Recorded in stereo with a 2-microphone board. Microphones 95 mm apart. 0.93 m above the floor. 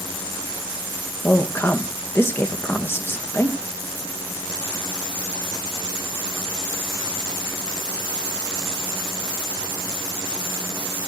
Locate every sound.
1.2 s a woman speaking: 25° left (ahead or behind), 1.1 m